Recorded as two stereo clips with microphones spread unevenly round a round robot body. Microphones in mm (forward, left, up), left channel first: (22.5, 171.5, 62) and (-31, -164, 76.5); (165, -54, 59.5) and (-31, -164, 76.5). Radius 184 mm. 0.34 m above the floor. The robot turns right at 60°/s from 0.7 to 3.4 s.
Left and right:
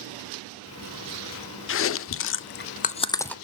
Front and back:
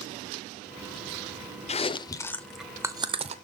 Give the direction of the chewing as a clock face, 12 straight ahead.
10 o'clock.